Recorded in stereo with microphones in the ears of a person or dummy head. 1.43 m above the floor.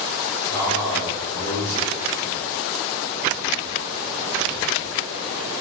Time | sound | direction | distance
0.5 | a man speaking | 25° left (ahead or behind) | 1.8 m